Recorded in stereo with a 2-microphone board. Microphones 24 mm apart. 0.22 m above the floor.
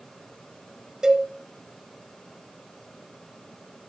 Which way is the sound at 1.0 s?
30° right (ahead or behind).